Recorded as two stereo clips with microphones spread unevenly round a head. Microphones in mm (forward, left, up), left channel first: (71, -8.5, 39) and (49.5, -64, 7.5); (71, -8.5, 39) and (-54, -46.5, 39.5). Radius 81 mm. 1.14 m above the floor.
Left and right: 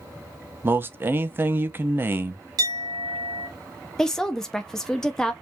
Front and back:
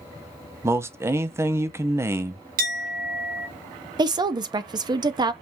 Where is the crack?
No crack in this recording.